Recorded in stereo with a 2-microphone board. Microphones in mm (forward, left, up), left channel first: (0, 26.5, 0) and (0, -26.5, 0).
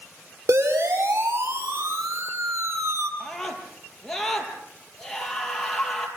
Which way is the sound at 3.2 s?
5° left (ahead or behind).